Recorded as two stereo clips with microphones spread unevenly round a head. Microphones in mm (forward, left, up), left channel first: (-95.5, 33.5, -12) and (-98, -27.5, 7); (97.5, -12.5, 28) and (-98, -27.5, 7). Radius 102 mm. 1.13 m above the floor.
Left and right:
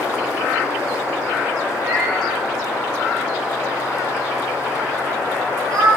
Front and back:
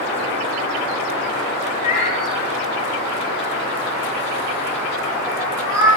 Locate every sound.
1.8 s a cat meowing: 45° right, 2.5 m; by 5.9 s 100° right, 4.5 m